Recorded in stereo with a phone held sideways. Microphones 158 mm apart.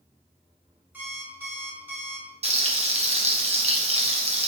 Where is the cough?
I don't hear a cough.